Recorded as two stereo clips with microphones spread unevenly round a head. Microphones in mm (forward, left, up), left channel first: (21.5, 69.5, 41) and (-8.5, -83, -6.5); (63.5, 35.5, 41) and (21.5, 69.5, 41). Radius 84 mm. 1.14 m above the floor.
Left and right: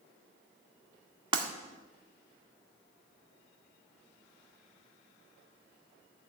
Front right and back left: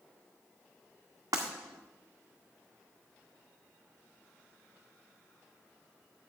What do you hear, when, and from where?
1.3 s breaking glass: 170° right, 1.8 m